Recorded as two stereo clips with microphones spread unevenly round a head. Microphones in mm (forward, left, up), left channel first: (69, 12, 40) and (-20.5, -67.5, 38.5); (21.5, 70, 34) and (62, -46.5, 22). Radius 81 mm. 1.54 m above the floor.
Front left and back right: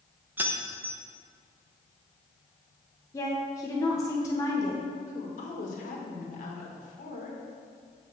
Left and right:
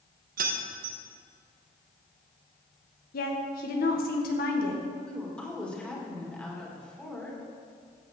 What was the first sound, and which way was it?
Keys jangling, 65° right.